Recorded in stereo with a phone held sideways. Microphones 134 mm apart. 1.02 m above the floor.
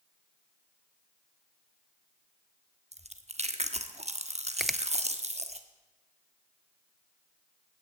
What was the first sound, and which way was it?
Chewing, 55° right (ahead or behind).